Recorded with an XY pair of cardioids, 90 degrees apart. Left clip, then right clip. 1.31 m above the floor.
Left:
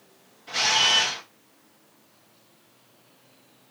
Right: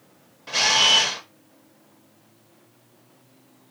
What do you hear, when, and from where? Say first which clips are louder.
0.5 s a camera shutter: right 3 dB; 70° right, 1.1 m